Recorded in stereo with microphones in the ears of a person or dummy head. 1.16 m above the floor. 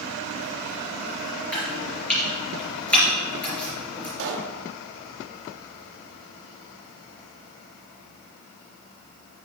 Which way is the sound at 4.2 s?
70° right (ahead or behind).